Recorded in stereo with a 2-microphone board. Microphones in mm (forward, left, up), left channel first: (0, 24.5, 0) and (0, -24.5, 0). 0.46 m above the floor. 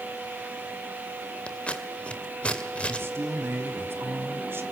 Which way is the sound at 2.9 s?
50° right (ahead or behind).